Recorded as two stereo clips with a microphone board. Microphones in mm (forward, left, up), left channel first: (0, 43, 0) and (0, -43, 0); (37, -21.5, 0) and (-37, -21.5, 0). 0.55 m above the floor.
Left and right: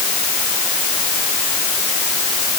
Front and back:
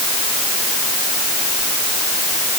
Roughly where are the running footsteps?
I don't hear running footsteps.